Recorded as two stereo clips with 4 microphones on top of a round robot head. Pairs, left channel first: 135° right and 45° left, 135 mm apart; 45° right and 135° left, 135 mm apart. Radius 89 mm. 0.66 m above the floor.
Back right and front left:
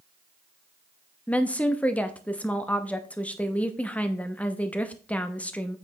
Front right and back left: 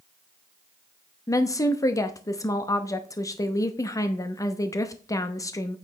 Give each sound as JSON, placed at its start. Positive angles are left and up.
{"t": 1.3, "sound": "a woman speaking", "azimuth_deg": -70, "distance_m": 0.8}